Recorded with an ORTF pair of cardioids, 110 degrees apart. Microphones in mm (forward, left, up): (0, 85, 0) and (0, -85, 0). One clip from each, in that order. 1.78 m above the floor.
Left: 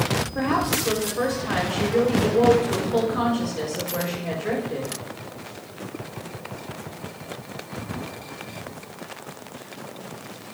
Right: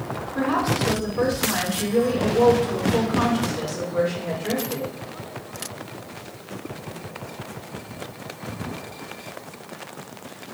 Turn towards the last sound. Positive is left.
turn(degrees=15)